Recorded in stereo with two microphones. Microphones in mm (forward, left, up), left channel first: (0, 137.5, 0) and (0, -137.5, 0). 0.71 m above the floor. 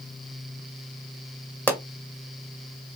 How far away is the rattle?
I don't hear a rattle.